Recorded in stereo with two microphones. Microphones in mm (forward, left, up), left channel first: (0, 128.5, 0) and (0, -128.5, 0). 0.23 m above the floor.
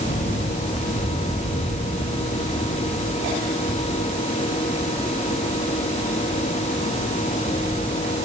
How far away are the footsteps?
I don't hear footsteps.